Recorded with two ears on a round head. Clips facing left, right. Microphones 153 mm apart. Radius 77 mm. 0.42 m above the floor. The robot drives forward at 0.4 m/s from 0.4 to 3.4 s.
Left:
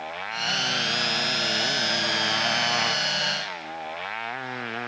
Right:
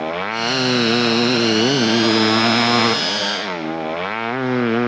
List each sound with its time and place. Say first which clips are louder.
0.0 s a motorcycle: right 11 dB; 70° right (ahead or behind)